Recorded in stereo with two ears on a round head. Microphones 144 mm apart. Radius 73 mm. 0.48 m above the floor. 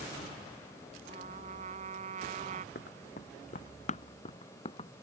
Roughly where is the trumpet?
Right.